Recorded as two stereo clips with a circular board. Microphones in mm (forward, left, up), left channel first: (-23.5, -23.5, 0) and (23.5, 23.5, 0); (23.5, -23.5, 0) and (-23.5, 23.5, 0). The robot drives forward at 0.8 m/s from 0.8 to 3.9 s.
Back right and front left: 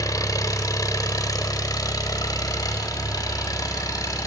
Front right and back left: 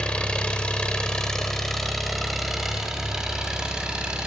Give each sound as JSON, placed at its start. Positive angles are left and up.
{"t": 0.0, "sound": "an engine running", "azimuth_deg": -120, "distance_m": 2.5}